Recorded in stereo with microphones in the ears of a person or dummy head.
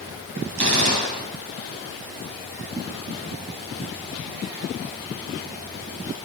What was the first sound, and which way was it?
A gunshot, 70° right (ahead or behind).